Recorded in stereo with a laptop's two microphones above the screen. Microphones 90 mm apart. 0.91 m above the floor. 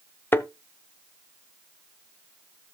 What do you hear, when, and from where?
0.3 s a thud: 25° left (ahead or behind), 0.8 m